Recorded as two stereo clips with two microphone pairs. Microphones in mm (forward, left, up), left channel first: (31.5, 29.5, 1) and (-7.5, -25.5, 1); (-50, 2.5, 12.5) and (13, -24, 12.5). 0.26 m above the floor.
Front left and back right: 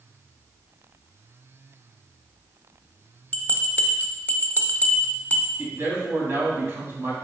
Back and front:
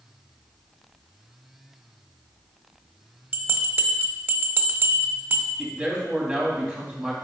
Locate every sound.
3.3 s a bell: 15° left, 0.7 m
5.6 s a man speaking: 85° right, 1.9 m